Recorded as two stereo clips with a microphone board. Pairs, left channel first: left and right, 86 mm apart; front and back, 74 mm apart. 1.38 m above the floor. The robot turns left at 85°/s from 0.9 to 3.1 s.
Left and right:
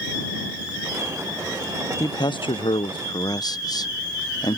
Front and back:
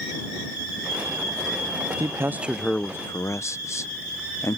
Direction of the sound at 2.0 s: 140° left.